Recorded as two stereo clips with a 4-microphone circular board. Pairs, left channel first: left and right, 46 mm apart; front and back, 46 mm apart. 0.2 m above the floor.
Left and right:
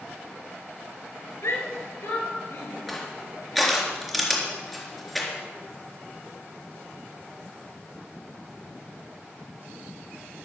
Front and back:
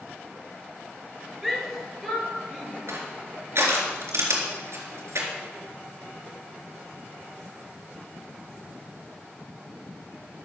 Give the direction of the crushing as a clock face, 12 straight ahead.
6 o'clock.